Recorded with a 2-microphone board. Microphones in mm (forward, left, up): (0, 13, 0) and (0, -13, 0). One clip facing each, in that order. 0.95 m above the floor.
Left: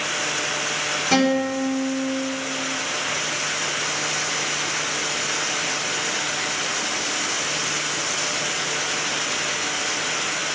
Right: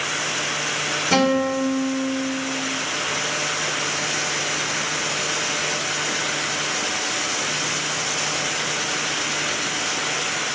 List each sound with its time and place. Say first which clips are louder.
1.1 s a guitar: right 1 dB; 15° left (ahead or behind), 1.9 m